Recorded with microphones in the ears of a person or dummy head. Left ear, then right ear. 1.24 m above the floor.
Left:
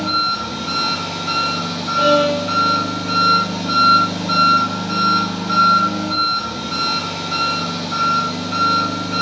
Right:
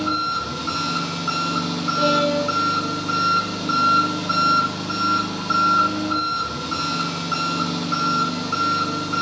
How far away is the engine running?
About 1.4 m.